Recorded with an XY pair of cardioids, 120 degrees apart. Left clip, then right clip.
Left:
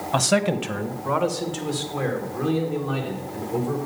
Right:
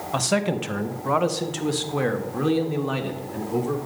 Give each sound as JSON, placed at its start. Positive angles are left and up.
{"t": 0.1, "sound": "a man speaking", "azimuth_deg": 15, "distance_m": 0.8}